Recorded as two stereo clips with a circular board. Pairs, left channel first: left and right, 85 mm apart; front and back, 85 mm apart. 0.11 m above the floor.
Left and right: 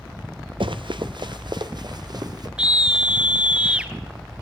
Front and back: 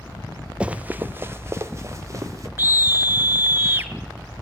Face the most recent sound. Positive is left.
turn(degrees=-155)